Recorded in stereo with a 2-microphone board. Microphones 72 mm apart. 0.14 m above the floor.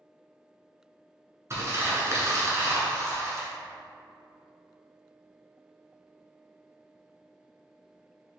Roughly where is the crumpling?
Right.